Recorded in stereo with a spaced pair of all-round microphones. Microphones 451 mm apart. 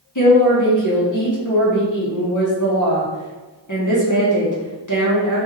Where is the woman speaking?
40° left (ahead or behind), 1.4 m.